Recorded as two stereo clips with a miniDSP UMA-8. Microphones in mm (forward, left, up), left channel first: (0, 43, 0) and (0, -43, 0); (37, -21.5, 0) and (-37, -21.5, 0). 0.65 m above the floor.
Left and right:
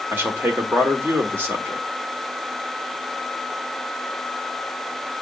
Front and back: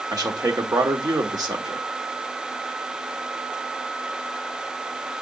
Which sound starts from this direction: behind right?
A man speaking, at 0.1 s.